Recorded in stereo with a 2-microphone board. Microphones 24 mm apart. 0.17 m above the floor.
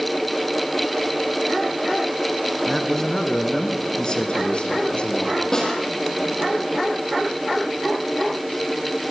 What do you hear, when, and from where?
2.7 s a man speaking: 10° left (ahead or behind), 2 m; by 5.4 s 50° left (ahead or behind), 4 m
5.5 s a snare drum: 25° left (ahead or behind), 7 m